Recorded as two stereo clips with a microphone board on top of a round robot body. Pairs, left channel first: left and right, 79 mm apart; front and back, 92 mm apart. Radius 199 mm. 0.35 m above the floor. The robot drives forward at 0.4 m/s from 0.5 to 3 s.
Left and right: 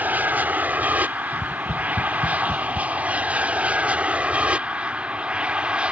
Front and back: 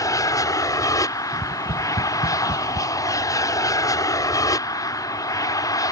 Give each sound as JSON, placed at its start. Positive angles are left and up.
{"t": 0.0, "sound": "an aircraft", "azimuth_deg": -30}
{"t": 1.3, "sound": "tapping", "azimuth_deg": 175}